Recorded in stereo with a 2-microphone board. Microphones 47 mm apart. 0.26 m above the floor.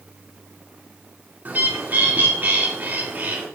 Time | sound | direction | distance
1.4 | a bird | 40° right (ahead or behind) | 2 m